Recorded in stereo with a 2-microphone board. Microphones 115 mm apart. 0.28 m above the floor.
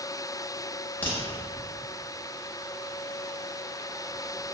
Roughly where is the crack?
Centre.